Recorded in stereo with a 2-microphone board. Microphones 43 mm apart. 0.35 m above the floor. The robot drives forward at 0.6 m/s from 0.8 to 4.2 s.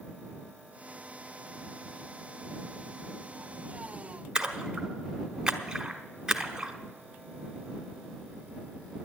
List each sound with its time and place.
4.3 s a splash: 20° right (ahead or behind), 1.2 m